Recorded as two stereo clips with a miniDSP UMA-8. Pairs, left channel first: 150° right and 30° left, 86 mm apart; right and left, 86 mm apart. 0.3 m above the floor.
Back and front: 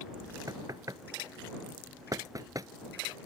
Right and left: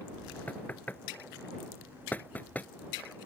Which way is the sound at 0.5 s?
20° right.